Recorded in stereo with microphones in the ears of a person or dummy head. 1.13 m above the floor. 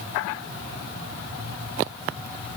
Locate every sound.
Only background noise.